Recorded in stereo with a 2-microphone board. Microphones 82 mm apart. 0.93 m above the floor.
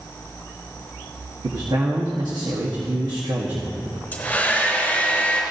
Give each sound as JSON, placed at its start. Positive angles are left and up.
{"t": 1.4, "sound": "a man speaking", "side_deg": -60, "distance_m": 1.2}
{"t": 4.1, "sound": "a hair dryer", "side_deg": 20, "distance_m": 4.0}